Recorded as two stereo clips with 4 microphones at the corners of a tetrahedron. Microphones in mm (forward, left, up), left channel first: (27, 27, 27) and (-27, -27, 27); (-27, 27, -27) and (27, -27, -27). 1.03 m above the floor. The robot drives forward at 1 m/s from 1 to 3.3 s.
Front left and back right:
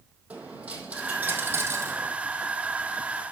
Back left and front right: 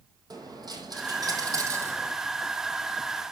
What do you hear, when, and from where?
0.3 s a dropped coin: 65° right, 2.5 m; by 2.1 s 95° right, 2 m